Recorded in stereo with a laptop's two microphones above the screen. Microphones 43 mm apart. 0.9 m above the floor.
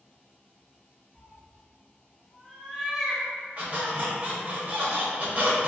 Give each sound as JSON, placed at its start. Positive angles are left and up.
{"t": 1.1, "sound": "a cat meowing", "side_deg": 10, "distance_m": 1.1}
{"t": 3.6, "sound": "a squeak", "side_deg": -35, "distance_m": 0.9}